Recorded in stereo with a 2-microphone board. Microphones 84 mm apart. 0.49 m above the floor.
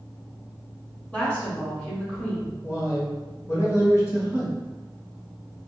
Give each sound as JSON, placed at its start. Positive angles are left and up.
{"t": 1.1, "sound": "a woman speaking", "side_deg": 15, "distance_m": 1.1}
{"t": 2.6, "sound": "a man speaking", "side_deg": 35, "distance_m": 1.5}